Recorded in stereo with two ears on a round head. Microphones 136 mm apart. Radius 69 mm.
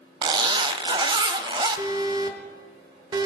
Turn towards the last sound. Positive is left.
turn(degrees=-30)  # may be behind; listen again after turning